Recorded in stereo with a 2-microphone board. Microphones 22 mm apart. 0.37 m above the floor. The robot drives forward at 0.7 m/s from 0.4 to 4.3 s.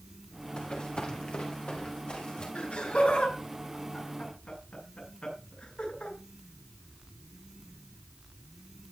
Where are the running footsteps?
60° left (ahead or behind), 3.5 m.